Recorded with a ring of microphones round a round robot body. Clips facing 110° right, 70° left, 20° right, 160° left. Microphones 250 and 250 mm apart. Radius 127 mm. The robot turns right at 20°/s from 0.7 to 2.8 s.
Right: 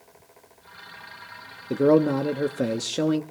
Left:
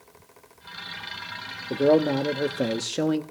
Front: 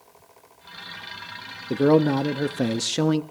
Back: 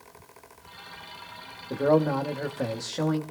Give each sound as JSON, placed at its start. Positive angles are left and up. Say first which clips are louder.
{"t": 1.7, "sound": "a man speaking", "louder": "right 2 dB, front 5 dB", "azimuth_deg": -50, "distance_m": 0.8}